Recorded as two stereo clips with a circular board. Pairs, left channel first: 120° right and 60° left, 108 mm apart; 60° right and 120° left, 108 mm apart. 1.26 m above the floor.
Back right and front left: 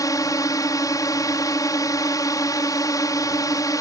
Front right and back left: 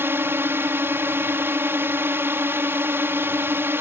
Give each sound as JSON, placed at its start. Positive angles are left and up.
{"t": 0.0, "sound": "a drone", "azimuth_deg": -175}